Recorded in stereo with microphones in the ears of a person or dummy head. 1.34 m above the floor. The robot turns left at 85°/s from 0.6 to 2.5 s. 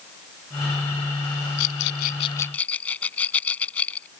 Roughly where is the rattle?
Left.